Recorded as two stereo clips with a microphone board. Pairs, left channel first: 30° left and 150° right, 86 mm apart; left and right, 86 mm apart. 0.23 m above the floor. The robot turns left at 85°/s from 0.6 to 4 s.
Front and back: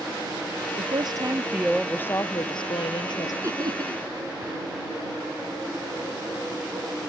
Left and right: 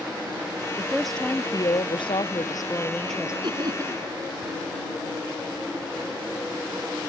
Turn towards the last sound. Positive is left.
turn(degrees=-150)